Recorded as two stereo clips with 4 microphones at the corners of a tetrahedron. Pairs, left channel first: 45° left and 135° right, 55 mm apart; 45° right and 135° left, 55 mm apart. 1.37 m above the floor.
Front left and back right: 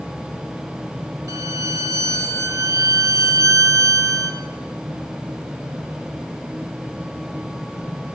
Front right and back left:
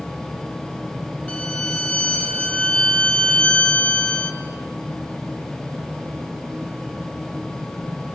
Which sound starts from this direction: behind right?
A violin, at 1.3 s.